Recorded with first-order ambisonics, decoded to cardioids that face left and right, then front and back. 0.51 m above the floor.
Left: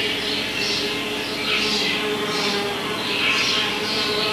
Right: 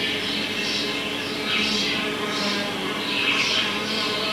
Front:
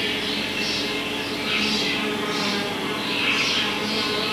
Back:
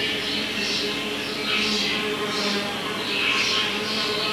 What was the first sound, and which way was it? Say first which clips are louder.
An insect: left 2 dB, even; 95° left.